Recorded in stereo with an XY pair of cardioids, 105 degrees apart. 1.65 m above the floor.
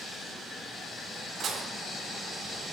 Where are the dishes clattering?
60° right, 4 m.